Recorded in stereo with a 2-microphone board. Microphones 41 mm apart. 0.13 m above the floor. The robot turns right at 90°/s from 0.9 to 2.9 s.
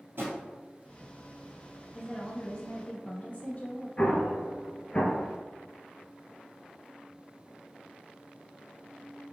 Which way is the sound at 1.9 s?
10° left.